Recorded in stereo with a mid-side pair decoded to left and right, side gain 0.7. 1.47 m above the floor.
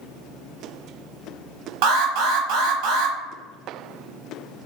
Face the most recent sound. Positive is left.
turn(degrees=-70)